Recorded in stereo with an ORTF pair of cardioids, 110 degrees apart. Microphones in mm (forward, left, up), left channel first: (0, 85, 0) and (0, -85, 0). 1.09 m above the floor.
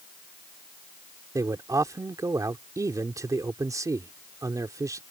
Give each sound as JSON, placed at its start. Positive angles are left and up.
{"t": 1.4, "sound": "a man speaking", "azimuth_deg": -20}